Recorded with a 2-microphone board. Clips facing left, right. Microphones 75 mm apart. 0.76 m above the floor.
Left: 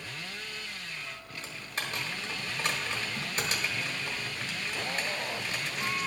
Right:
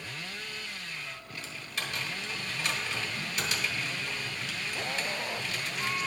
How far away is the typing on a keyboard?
About 1.3 m.